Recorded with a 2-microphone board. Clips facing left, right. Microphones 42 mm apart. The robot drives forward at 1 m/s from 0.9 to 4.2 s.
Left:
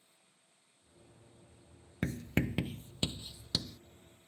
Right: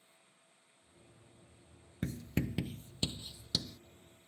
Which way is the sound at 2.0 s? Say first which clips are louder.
Left 3 dB; 85° left.